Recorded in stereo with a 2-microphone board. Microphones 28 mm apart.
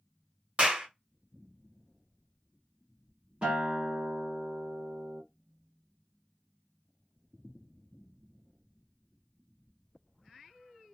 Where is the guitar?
35° right (ahead or behind), 1.6 m.